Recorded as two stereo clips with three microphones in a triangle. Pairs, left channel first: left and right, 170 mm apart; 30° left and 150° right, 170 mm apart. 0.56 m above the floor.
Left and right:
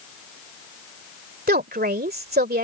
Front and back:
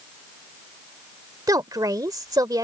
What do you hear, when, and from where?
1.5 s a woman speaking: 85° right